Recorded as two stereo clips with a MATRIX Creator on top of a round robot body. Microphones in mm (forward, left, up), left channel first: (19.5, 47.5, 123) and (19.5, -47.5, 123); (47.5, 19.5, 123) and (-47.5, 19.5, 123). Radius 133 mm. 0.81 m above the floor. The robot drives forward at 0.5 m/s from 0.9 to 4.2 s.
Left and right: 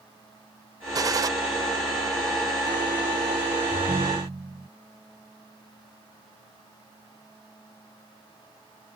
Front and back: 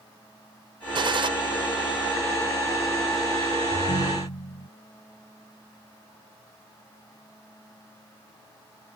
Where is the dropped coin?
I don't hear a dropped coin.